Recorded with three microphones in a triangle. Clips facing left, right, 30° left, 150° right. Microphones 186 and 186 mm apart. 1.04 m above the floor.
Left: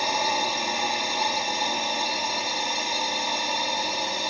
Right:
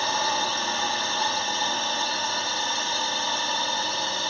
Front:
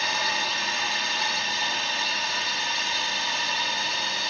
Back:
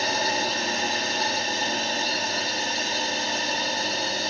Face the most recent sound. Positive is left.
turn(degrees=165)